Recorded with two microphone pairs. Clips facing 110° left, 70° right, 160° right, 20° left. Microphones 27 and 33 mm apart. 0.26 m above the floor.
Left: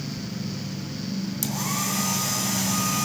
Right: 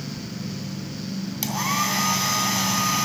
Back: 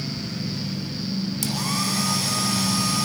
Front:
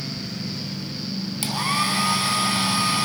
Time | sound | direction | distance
1.4 | a hair dryer | 25° right | 2.5 m